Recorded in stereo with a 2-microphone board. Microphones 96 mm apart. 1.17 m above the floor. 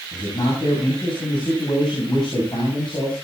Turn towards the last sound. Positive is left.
turn(degrees=55)  # may be behind; listen again after turning